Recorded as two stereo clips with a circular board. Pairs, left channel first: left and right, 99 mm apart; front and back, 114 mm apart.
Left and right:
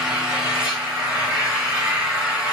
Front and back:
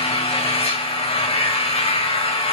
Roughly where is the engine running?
Ahead.